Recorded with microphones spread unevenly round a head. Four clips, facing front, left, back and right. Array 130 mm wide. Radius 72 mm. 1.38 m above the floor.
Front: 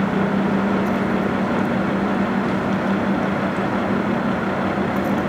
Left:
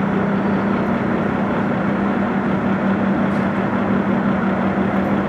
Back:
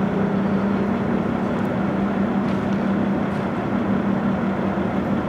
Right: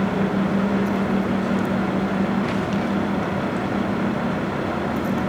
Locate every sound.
Only background noise.